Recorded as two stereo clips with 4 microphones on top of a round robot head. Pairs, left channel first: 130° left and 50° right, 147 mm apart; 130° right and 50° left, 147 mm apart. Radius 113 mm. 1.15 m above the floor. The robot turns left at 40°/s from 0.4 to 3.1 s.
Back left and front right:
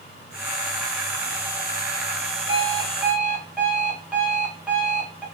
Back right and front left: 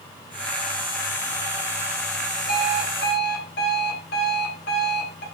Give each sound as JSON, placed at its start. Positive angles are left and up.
{"t": 2.5, "sound": "an alarm clock", "azimuth_deg": -105, "distance_m": 1.0}